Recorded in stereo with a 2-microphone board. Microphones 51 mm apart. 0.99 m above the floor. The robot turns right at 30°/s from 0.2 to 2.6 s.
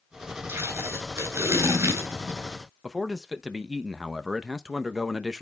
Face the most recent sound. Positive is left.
turn(degrees=-10)  # may be behind; listen again after turning